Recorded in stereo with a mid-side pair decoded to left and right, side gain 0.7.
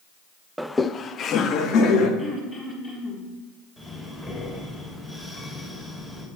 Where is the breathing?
15° left, 3.5 m.